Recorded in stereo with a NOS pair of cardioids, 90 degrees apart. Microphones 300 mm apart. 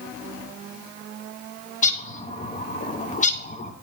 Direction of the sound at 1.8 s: 25° left.